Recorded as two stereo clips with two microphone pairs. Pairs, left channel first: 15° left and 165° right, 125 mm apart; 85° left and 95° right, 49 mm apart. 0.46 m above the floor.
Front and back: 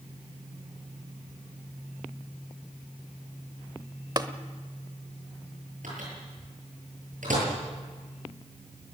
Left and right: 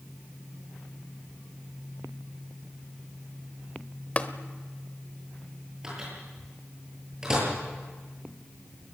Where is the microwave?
170° right, 9.5 m.